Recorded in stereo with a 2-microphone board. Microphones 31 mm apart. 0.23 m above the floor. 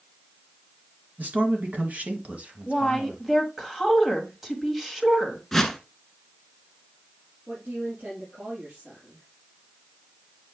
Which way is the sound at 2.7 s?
10° right (ahead or behind).